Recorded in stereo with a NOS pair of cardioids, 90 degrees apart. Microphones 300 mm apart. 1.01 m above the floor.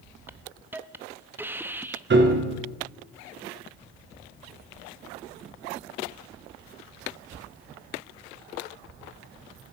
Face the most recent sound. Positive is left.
turn(degrees=-40)